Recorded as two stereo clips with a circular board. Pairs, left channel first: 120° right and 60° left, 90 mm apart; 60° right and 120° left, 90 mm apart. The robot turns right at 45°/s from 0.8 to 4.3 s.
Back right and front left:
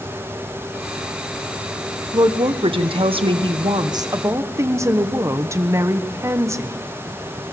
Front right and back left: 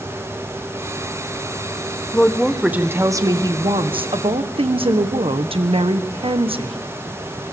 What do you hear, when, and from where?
2.1 s a woman speaking: 20° left, 1.2 m; by 6.8 s 115° left, 1.2 m